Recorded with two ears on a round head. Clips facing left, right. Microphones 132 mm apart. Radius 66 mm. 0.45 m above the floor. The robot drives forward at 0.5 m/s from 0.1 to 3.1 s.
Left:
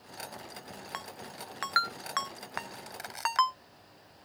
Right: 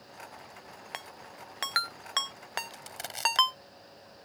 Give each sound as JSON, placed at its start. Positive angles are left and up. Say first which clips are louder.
{"t": 0.9, "sound": "a ringtone", "louder": "left 2 dB", "side_deg": -25}
{"t": 2.7, "sound": "crushing", "louder": "even", "side_deg": -30}